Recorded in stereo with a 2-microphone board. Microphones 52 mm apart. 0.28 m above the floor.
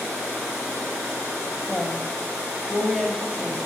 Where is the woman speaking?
5° left (ahead or behind), 1.6 m.